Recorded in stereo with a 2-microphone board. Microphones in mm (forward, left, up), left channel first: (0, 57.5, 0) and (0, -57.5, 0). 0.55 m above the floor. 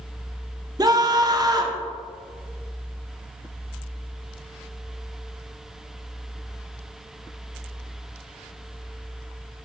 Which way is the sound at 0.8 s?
35° right (ahead or behind).